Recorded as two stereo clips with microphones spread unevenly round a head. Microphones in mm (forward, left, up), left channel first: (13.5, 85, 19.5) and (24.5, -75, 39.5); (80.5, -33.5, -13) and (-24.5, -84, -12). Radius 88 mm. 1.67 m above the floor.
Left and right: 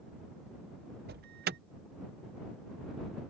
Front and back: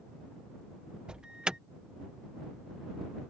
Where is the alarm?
70° right.